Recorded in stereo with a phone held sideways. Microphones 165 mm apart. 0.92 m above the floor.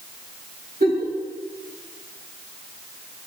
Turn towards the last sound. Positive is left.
turn(degrees=-70)  # may be behind; listen again after turning